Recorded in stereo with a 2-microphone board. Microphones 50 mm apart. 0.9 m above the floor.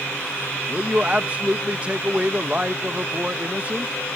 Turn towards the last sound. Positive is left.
turn(degrees=-25)  # may be behind; listen again after turning